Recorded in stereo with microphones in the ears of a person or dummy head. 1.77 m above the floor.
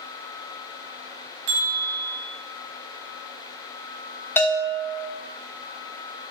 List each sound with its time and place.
1.5 s a bell: 35° right (ahead or behind), 1.0 m
4.4 s a bell: 15° left (ahead or behind), 0.6 m